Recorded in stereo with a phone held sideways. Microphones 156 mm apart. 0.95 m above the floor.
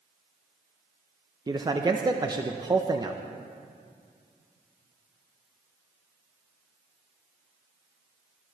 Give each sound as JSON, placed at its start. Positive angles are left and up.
{"t": 1.5, "sound": "a man speaking", "side_deg": -25, "distance_m": 0.6}